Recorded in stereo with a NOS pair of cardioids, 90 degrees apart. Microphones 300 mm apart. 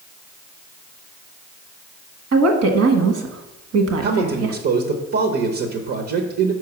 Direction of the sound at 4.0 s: 55° right.